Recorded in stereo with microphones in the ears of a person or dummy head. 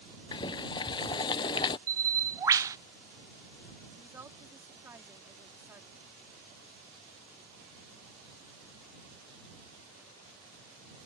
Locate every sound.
0.3 s boiling: 25° left (ahead or behind)
1.9 s a bird: 15° right (ahead or behind)
4.0 s a woman speaking: 10° right (ahead or behind)